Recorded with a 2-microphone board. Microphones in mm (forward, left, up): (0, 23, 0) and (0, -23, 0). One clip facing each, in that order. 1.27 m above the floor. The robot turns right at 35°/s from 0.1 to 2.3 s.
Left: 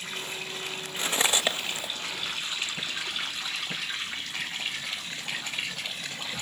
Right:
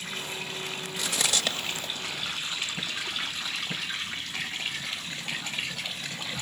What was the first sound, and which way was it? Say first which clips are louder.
Cutlery clinking: left 3 dB; 35° left (ahead or behind).